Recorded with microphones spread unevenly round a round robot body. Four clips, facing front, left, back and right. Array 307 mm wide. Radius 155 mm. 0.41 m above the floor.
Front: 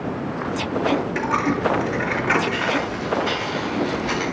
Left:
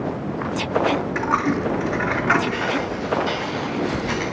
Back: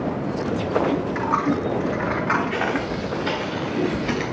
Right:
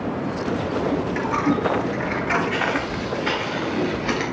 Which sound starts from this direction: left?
A dropped coin, at 1.1 s.